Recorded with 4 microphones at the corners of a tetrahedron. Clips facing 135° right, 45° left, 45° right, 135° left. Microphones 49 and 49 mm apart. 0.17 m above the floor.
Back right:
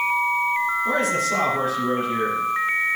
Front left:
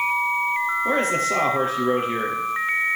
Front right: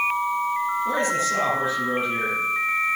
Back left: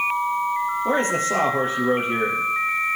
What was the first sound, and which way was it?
A man speaking, 95° left.